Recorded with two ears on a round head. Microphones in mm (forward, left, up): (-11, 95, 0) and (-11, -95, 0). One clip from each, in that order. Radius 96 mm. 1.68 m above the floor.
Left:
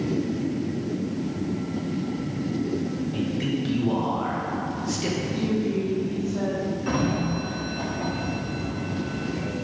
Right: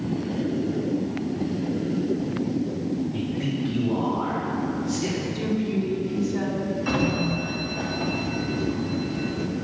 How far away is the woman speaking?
About 2 m.